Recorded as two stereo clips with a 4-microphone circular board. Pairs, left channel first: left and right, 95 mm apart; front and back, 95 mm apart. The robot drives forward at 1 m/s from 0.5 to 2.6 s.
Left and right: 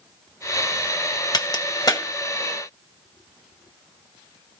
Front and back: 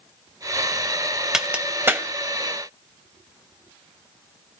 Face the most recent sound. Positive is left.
turn(degrees=140)